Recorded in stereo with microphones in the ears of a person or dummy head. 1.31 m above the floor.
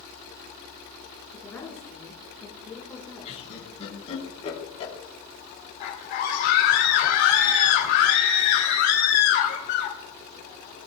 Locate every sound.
1.3 s a woman speaking: 15° left (ahead or behind), 4.5 m
3.2 s laughter: 35° left (ahead or behind), 3.5 m
5.8 s a scream: 55° left (ahead or behind), 2.5 m